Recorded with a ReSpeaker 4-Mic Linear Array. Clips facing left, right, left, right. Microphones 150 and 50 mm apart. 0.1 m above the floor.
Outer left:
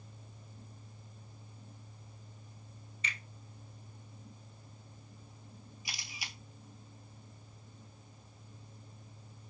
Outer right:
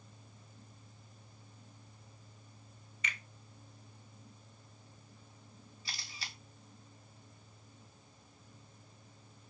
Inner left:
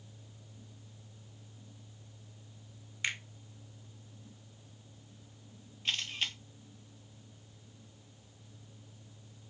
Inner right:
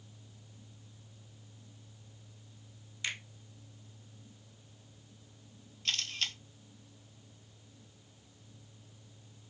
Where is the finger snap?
30° left (ahead or behind), 1.0 m.